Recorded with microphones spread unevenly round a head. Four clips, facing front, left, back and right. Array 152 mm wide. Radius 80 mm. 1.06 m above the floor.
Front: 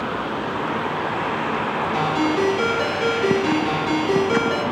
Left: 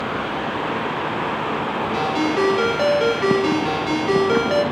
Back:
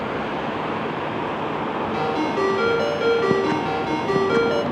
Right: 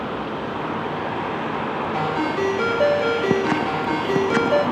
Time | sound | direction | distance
1.9 | a ringtone | 80° left | 1.1 m